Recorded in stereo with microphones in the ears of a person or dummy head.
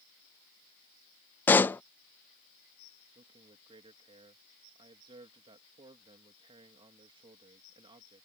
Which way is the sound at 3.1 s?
25° right (ahead or behind).